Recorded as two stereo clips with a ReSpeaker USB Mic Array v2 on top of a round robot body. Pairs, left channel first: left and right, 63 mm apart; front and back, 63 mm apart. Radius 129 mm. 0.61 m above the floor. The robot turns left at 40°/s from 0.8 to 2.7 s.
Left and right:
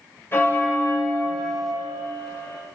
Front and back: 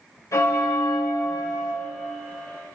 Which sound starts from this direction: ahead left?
A bell, at 0.3 s.